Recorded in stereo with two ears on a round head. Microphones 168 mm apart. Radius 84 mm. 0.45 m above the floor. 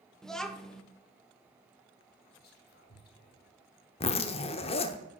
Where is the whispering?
55° left (ahead or behind), 1.4 m.